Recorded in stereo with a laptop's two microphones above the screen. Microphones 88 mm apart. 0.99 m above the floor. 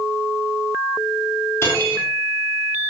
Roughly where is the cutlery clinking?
Left.